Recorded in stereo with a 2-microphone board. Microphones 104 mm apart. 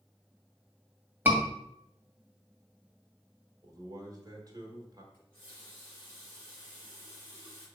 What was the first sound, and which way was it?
A scream, 20° right (ahead or behind).